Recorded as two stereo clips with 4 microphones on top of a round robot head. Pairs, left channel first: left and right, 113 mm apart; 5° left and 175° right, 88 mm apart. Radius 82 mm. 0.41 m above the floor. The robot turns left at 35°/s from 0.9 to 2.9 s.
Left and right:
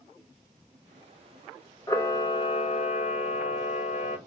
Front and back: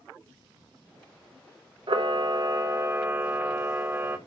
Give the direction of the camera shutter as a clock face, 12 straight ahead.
7 o'clock.